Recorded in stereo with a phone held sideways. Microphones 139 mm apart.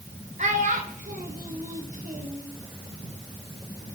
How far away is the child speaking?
About 3 m.